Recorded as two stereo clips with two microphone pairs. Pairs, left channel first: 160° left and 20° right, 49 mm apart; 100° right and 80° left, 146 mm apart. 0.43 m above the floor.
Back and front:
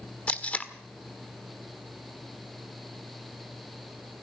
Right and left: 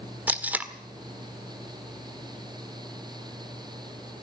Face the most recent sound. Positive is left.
turn(degrees=150)